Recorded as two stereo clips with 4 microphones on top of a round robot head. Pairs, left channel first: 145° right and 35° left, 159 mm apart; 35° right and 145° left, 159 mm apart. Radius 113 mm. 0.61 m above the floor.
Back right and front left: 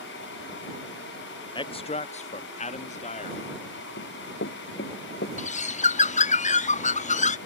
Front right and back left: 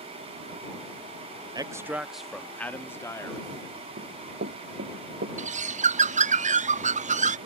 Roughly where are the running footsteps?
Behind.